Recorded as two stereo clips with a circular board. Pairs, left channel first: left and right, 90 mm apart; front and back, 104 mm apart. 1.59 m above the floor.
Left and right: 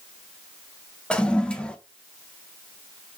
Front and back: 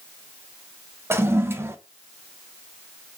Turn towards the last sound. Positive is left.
turn(degrees=155)